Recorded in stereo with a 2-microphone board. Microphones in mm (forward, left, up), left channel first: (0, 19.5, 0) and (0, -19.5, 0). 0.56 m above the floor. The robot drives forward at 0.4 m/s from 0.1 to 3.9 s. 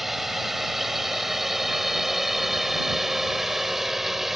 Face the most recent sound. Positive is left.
turn(degrees=-10)  # may be behind; listen again after turning